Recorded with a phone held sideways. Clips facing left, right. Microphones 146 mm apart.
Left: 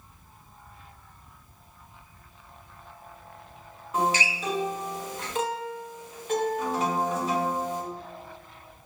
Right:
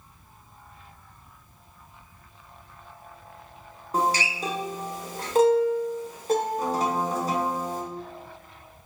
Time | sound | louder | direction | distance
3.9 | a guitar | right 1 dB | 40° right (ahead or behind) | 0.6 m